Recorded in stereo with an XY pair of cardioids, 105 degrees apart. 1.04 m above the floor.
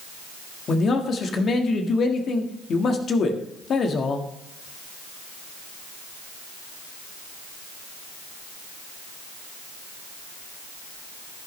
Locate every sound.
0.7 s a man speaking: 50° left, 1.6 m